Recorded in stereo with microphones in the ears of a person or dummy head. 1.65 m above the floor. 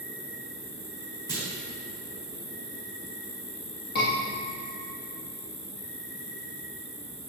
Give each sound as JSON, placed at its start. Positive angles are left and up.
{"t": 0.0, "sound": "an insect", "side_deg": 55, "distance_m": 1.6}
{"t": 1.3, "sound": "a clunk", "side_deg": 20, "distance_m": 1.4}
{"t": 4.0, "sound": "a scream", "side_deg": 55, "distance_m": 2.5}